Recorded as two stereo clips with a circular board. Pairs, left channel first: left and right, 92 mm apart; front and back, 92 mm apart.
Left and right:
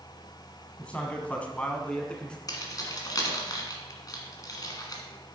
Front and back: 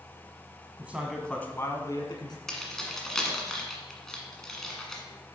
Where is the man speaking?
145° left, 1.0 m; by 2.4 s 15° left, 1.6 m.